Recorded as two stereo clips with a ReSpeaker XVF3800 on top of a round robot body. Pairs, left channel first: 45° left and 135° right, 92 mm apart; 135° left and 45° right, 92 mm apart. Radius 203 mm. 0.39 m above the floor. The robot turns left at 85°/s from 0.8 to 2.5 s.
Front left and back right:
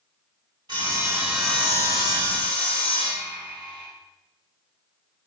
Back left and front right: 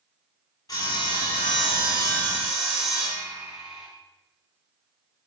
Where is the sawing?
175° right, 2 m; by 3.9 s 40° left, 2 m.